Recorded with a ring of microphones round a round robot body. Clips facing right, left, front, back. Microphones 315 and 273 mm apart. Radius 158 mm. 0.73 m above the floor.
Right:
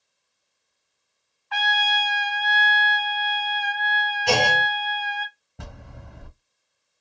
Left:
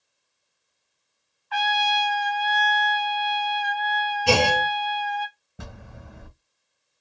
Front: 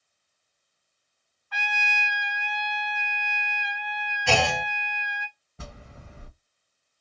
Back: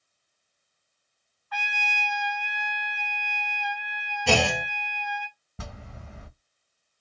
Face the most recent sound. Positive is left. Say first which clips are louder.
# left 1 dB, back 2 dB
turn(degrees=180)